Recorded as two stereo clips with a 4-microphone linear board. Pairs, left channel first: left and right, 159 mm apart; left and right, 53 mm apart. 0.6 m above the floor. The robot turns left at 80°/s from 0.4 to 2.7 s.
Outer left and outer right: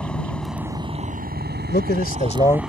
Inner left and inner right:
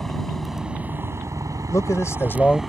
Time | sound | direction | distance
0.0 | a helicopter | 5° left (ahead or behind) | ?
1.7 | a man speaking | 95° left | ?